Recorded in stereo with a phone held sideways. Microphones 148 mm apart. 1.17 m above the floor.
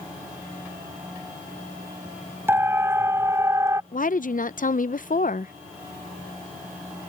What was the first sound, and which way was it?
A siren, 15° right (ahead or behind).